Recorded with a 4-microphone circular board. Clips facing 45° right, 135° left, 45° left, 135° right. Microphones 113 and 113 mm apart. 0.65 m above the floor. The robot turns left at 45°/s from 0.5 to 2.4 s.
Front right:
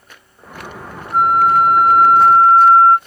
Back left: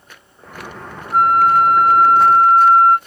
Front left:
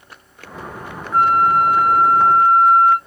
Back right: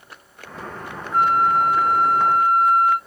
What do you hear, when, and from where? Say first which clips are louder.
1.1 s a flute: even, front left 3 dB; 90° left, 1.9 m; by 3.0 s 35° left, 1.9 m